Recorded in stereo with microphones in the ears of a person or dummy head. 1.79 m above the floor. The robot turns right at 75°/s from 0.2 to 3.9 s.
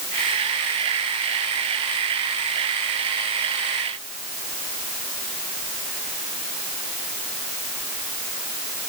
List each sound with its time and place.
Only background noise.